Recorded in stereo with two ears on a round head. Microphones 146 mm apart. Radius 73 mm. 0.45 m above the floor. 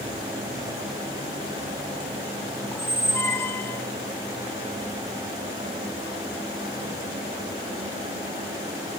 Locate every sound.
2.7 s a squeak: 15° left (ahead or behind), 0.9 m